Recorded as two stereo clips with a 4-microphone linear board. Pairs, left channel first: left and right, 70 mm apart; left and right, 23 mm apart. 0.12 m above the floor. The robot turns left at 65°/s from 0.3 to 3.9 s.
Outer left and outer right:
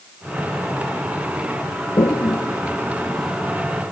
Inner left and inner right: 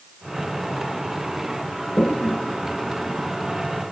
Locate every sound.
2.0 s a toilet flushing: 75° left (ahead or behind), 1.5 m; by 3.7 s 25° right (ahead or behind), 1.5 m